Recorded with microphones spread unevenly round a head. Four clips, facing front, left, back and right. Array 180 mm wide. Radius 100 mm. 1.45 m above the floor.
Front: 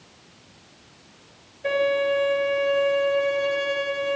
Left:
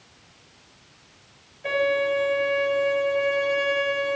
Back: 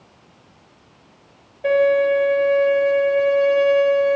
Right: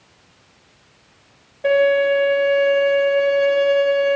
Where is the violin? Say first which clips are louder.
Right 8 dB, back 6 dB; 135° right, 4 m.